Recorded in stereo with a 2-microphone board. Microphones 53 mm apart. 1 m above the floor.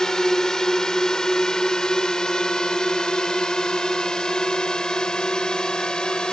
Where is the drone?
10° left (ahead or behind); by 6.3 s 15° left (ahead or behind).